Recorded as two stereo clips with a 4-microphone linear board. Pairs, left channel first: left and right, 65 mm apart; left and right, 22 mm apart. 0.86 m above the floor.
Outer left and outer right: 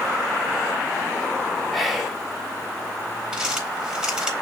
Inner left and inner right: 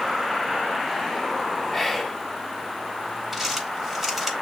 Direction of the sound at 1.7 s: Centre (ahead or behind).